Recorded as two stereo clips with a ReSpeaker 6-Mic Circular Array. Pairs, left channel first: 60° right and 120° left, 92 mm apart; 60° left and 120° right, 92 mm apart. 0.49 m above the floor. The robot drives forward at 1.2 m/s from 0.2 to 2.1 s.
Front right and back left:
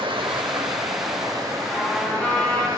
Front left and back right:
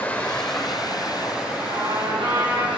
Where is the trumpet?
135° right, 3 m; by 2.7 s 140° right, 3.5 m.